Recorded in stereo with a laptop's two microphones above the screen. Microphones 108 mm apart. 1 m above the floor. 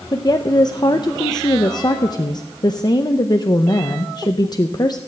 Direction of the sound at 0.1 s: 40° left (ahead or behind).